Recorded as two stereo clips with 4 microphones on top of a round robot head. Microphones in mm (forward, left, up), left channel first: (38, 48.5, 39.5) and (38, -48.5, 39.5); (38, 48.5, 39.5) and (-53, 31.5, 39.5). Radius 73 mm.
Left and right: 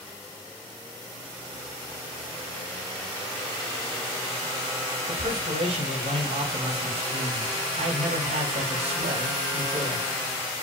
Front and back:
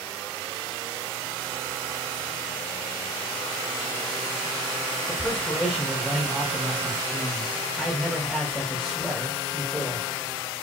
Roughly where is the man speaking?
Right.